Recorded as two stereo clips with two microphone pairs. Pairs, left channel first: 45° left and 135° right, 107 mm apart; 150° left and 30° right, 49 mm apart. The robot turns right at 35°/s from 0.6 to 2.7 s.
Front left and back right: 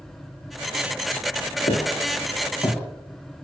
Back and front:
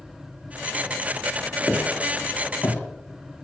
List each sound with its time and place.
1.7 s footsteps: 55° left, 2 m; by 3.4 s 125° left, 3 m